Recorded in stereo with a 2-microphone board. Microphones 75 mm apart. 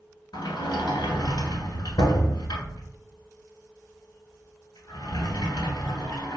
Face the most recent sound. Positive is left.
turn(degrees=80)